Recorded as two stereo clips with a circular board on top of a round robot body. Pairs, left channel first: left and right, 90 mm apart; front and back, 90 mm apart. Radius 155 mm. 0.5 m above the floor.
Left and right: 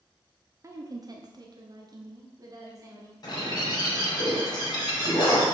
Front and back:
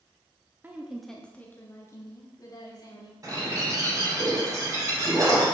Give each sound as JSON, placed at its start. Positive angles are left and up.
{"t": 0.6, "sound": "a woman speaking", "azimuth_deg": -120, "distance_m": 0.8}
{"t": 3.2, "sound": "a bird", "azimuth_deg": 130, "distance_m": 2.5}